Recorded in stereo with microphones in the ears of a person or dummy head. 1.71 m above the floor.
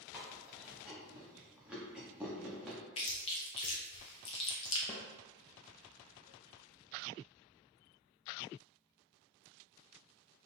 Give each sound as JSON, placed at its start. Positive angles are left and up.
{"t": 0.1, "sound": "chewing", "side_deg": -5, "distance_m": 1.1}
{"t": 3.0, "sound": "chewing", "side_deg": 35, "distance_m": 0.6}
{"t": 4.9, "sound": "a snare drum", "side_deg": 15, "distance_m": 0.5}